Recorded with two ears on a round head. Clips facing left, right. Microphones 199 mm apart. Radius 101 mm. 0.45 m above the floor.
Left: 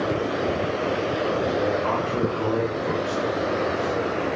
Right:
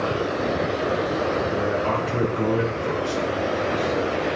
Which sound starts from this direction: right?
A man speaking, at 1.5 s.